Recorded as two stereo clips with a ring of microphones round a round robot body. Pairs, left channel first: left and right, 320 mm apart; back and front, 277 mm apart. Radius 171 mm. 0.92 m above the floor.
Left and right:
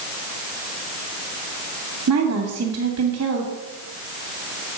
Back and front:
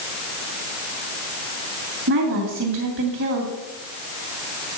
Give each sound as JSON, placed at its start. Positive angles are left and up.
{"t": 2.1, "sound": "a woman speaking", "azimuth_deg": -45, "distance_m": 2.5}